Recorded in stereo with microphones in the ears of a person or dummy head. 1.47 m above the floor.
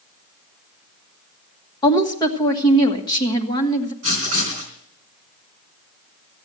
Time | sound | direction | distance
1.8 | a woman speaking | 25° left (ahead or behind) | 1.6 m
4.0 | writing | 40° right (ahead or behind) | 4 m